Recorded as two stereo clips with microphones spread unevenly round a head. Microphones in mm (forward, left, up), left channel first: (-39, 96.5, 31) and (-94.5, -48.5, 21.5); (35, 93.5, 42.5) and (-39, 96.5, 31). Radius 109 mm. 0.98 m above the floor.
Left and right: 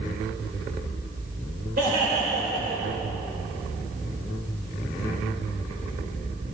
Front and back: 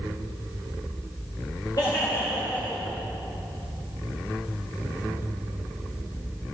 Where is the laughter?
65° right, 4 m; by 3.0 s 85° right, 3.5 m.